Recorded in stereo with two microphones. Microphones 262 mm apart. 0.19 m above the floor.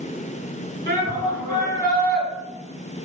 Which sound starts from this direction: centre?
A shout, at 0.9 s.